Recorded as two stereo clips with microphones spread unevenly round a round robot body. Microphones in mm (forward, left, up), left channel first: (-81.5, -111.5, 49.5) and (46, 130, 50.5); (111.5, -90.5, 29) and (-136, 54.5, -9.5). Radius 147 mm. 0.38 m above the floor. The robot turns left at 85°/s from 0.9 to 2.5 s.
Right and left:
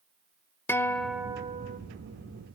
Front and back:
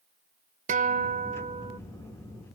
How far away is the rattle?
No rattle in this recording.